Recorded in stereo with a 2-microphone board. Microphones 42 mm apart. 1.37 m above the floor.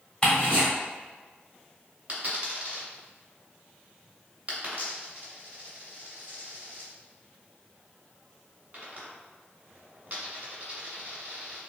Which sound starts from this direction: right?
A dropped coin, at 2.1 s.